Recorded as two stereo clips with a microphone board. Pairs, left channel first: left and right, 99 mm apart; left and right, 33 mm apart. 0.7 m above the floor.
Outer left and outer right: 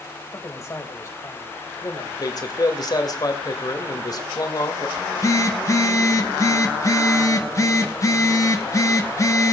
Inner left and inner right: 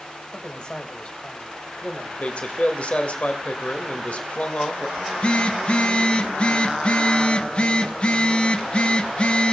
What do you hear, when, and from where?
0.3 s a man speaking: 30° left (ahead or behind), 4 m
2.2 s a man speaking: 45° left (ahead or behind), 2.5 m
5.0 s a phone buzzing: 35° left (ahead or behind), 1.2 m